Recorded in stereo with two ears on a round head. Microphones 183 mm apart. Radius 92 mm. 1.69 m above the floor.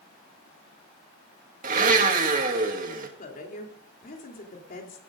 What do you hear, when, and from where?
1.6 s a blender: 40° right (ahead or behind), 2 m
3.2 s a woman speaking: 45° left (ahead or behind), 3.5 m